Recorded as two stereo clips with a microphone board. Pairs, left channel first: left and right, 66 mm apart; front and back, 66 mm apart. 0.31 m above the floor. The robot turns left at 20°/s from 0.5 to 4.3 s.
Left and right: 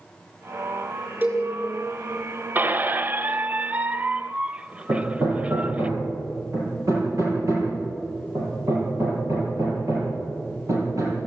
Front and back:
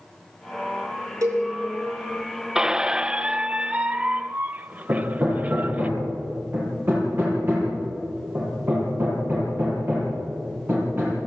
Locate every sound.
1.2 s a cowbell: 145° right, 6 m; by 1.5 s 150° right, 6 m
2.5 s a squeak: 110° right, 0.6 m; by 5.9 s 145° right, 0.6 m
4.9 s hammering: 125° right, 7.5 m